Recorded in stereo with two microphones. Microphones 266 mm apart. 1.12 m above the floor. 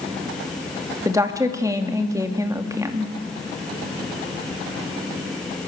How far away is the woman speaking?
About 2.5 m.